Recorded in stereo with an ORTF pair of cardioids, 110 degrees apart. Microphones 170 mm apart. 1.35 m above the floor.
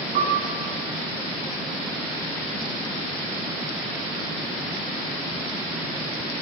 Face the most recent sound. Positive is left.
turn(degrees=-65)